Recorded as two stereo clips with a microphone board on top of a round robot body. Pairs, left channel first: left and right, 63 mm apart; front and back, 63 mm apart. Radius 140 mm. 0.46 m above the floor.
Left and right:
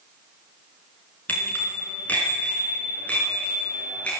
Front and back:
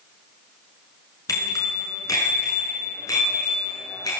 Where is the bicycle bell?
25° left, 5.5 m; by 4.1 s 20° left, 7 m.